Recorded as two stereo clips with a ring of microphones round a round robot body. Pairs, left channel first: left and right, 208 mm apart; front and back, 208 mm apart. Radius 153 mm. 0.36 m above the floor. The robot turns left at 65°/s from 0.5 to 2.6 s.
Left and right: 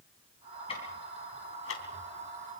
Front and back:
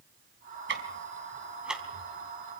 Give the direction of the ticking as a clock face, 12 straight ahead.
7 o'clock.